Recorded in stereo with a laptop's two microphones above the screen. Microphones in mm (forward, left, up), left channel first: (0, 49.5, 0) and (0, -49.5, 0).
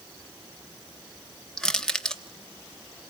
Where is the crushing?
5° left (ahead or behind), 0.7 m.